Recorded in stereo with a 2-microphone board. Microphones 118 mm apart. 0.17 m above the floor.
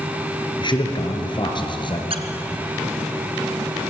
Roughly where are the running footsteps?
I don't hear running footsteps.